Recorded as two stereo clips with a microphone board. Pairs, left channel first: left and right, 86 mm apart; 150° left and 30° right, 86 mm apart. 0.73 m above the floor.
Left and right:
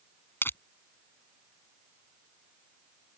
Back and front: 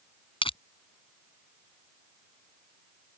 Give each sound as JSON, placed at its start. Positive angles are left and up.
{"t": 0.4, "sound": "crushing", "azimuth_deg": 155}